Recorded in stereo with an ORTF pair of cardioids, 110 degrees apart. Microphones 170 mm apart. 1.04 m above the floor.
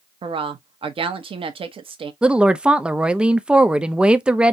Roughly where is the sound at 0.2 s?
Ahead right.